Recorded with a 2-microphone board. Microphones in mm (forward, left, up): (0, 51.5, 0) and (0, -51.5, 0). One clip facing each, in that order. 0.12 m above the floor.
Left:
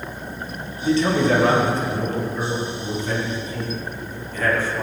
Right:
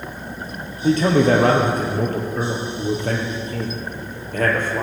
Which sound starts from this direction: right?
A man speaking, at 0.8 s.